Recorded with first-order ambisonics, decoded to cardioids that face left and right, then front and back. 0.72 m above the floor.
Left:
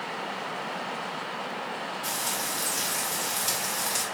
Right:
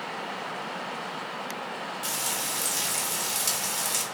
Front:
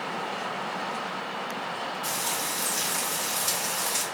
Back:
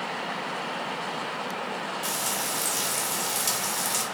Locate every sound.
2.0 s frying: 130° right, 1.8 m